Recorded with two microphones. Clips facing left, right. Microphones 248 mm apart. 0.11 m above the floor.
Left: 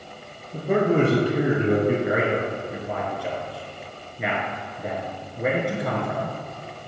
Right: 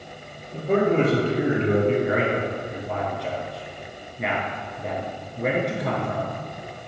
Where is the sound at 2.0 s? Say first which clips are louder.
Even; 5° left (ahead or behind), 1.3 m.